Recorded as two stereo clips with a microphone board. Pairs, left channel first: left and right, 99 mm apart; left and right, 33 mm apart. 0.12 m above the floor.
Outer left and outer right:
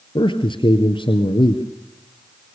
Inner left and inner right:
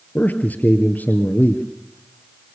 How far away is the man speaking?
About 2.0 m.